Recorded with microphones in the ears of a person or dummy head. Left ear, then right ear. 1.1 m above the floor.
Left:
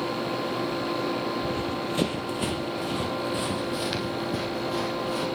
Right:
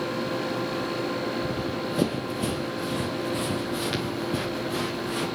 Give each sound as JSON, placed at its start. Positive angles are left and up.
{"t": 1.4, "sound": "running footsteps", "side_deg": 20, "distance_m": 1.2}